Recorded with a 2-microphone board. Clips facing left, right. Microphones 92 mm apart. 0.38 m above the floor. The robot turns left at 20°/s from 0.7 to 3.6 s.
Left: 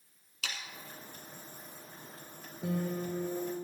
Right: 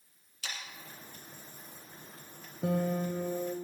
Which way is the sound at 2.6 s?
60° right (ahead or behind).